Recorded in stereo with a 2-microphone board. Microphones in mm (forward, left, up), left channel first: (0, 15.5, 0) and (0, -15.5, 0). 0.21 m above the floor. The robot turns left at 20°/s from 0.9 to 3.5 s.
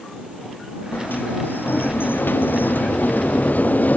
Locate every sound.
0.9 s a sliding door: 110° left; by 4.0 s 60° left